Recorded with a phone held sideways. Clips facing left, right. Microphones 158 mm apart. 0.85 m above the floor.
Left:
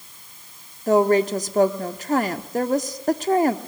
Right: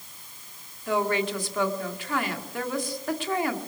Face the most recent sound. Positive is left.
turn(degrees=40)  # may be behind; listen again after turning